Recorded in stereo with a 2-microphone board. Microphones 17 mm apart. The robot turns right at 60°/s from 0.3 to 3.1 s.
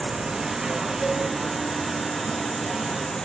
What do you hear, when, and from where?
0.0 s an insect: 55° right, 1.5 m; by 3.2 s 110° left, 1.5 m
1.0 s a cowbell: 80° left, 3.5 m; by 1.2 s 75° left (ahead or behind), 3.5 m